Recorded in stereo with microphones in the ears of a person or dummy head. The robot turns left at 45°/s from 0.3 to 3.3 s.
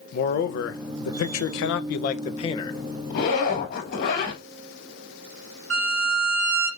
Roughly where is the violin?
Right.